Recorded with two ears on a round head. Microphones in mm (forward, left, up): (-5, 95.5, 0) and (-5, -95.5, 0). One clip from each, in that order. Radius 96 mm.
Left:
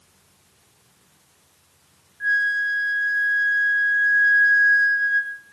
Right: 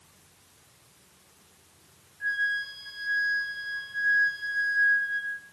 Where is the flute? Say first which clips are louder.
Left 8 dB; 45° left (ahead or behind), 1.8 m.